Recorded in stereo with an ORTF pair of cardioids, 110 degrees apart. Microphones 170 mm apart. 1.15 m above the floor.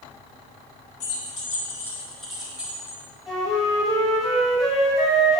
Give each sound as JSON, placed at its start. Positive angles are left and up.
{"t": 1.0, "sound": "keys jangling", "azimuth_deg": 40, "distance_m": 2.0}
{"t": 3.3, "sound": "a flute", "azimuth_deg": 0, "distance_m": 3.0}